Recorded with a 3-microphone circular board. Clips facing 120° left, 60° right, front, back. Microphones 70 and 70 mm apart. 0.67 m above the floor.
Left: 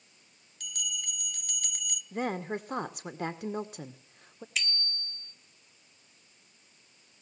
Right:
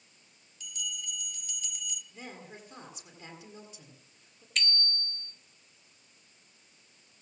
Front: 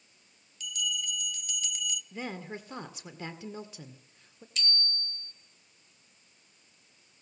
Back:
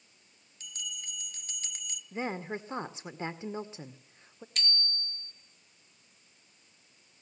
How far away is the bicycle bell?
About 2 m.